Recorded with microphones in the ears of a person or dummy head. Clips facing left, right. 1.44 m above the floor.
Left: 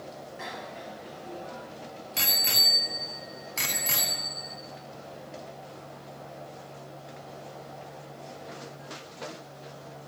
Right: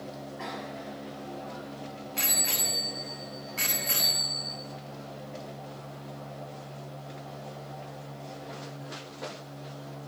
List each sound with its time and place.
0.4 s a bicycle bell: 40° left (ahead or behind), 7.5 m; by 4.6 s 80° left, 8.5 m